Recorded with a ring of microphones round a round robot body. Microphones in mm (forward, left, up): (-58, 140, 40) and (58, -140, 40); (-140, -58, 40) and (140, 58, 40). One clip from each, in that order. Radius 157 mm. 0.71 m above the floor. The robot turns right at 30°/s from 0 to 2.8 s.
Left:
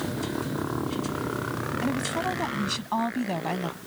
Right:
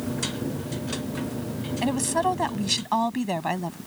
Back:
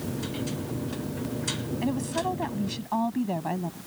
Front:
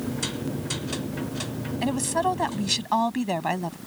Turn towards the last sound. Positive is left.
turn(degrees=0)